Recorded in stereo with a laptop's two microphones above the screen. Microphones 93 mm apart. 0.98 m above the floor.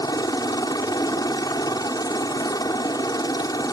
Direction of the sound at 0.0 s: 45° left (ahead or behind).